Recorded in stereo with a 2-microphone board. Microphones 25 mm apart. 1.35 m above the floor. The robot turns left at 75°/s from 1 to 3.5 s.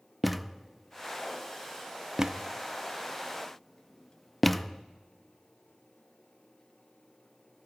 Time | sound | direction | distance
0.2 | a thud | centre (ahead or behind) | 0.7 m